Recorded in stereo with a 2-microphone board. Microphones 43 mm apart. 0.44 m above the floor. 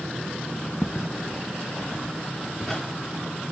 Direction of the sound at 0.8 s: 35° left (ahead or behind).